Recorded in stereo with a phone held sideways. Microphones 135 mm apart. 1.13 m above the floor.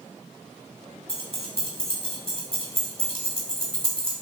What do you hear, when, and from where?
1.1 s keys jangling: 45° right (ahead or behind), 2.5 m